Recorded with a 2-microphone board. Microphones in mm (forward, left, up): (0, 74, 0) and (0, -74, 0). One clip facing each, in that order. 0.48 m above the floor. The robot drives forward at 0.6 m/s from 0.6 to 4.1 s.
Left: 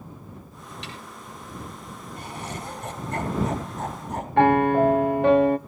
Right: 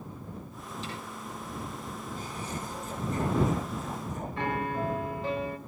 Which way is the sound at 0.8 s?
75° left (ahead or behind).